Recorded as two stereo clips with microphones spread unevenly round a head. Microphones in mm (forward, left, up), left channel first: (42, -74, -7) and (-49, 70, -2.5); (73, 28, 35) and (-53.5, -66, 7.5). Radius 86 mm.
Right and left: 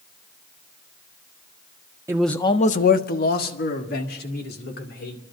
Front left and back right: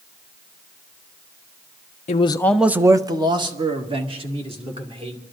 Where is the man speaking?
60° left, 0.6 m; by 5.2 s 95° right, 3.5 m.